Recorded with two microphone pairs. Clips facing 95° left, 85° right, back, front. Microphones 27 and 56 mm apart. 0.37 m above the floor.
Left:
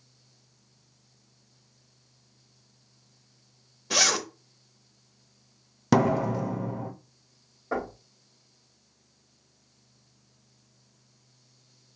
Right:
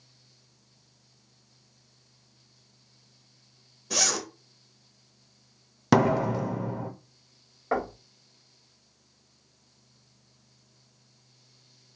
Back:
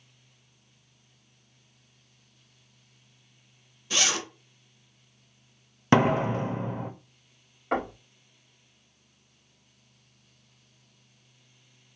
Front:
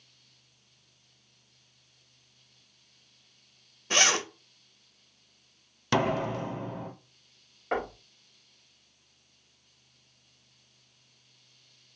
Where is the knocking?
85° right, 1.6 m.